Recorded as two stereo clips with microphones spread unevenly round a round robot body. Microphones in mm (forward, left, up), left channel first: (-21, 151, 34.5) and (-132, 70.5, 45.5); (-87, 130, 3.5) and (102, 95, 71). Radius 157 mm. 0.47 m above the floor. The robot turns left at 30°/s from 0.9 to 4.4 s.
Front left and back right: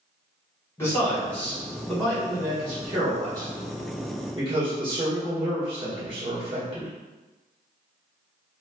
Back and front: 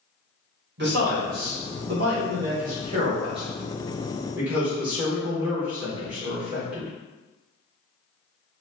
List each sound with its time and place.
0.8 s a man speaking: 15° right, 1.5 m; by 6.9 s 120° right, 1.5 m